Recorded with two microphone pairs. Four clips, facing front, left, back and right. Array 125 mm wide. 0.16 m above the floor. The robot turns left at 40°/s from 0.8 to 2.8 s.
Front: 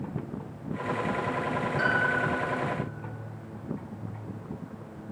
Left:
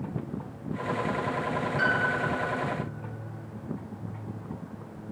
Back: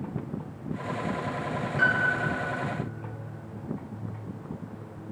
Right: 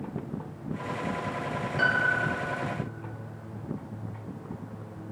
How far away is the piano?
About 1.3 m.